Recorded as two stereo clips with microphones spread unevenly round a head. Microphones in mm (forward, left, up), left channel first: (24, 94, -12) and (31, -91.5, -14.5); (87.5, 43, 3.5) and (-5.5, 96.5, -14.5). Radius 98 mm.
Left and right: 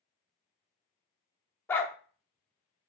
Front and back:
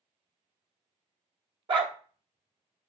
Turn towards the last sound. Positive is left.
turn(degrees=160)